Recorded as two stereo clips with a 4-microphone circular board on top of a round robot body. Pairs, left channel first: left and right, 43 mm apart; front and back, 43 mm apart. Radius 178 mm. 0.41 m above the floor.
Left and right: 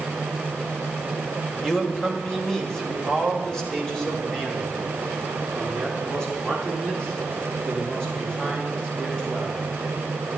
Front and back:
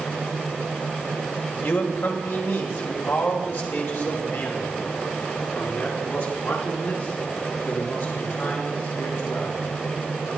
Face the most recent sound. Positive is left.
turn(degrees=20)